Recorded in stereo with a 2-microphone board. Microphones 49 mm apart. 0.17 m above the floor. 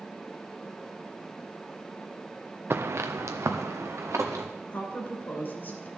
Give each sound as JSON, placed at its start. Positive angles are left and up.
{"t": 2.7, "sound": "footsteps", "side_deg": -50, "distance_m": 0.7}
{"t": 4.7, "sound": "a woman speaking", "side_deg": 40, "distance_m": 2.5}